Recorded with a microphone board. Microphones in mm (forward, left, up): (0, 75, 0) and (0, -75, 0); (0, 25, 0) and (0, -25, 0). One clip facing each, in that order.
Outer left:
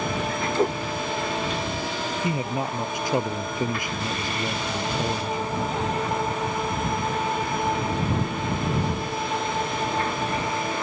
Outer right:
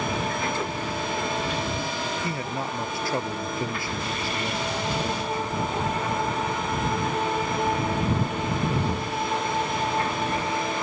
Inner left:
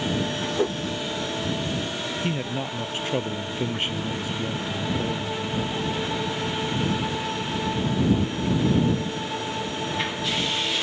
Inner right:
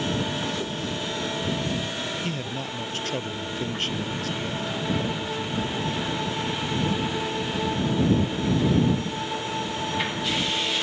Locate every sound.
0.6 s a whoosh: 40° left (ahead or behind)
2.2 s a man speaking: 15° left (ahead or behind)